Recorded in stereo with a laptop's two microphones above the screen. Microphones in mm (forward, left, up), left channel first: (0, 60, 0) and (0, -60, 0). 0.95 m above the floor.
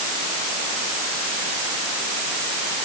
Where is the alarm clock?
I don't hear an alarm clock.